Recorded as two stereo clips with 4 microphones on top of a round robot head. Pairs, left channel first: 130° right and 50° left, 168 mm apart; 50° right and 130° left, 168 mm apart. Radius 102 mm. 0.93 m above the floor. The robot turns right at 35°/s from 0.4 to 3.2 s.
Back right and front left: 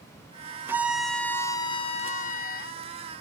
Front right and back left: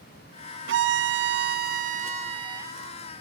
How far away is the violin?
About 0.7 m.